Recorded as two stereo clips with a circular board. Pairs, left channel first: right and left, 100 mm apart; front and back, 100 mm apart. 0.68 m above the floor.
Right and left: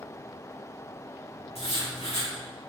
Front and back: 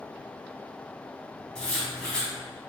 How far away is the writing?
About 2.5 m.